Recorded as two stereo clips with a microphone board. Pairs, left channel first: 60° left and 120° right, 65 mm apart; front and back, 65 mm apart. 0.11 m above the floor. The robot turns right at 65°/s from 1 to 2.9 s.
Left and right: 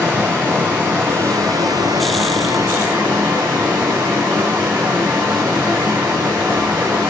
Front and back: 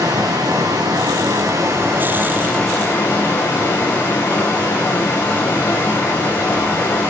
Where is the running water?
175° left, 5.5 m; by 7.1 s 60° right, 5.5 m.